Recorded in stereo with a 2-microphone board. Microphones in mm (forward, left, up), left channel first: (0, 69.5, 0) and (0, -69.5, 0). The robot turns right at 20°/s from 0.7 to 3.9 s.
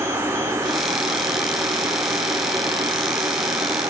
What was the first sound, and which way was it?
Only background noise.